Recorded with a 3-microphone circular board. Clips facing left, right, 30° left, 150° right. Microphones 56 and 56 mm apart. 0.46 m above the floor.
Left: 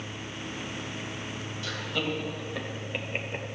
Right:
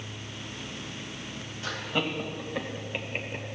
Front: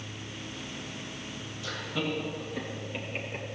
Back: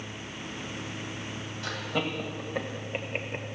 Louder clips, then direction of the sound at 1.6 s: Right 2 dB, back 1 dB; 145° right.